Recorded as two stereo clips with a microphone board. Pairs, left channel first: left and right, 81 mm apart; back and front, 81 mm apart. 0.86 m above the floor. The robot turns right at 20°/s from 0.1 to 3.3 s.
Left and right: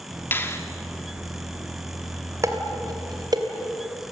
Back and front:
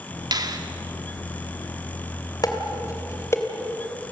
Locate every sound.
0.3 s a finger snap: 25° left, 1.9 m; by 0.6 s 30° left, 1.9 m
2.4 s dishes clattering: 140° right, 2.5 m; by 3.4 s 125° right, 2.5 m